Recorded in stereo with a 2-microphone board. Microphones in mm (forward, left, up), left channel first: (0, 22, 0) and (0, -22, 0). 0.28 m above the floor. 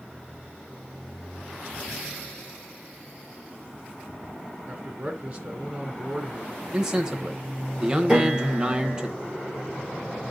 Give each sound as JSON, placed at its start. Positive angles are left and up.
{"t": 4.7, "sound": "a man speaking", "side_deg": -25, "distance_m": 3.0}
{"t": 6.7, "sound": "a man speaking", "side_deg": -15, "distance_m": 1.0}
{"t": 8.1, "sound": "a piano", "side_deg": -15, "distance_m": 7.0}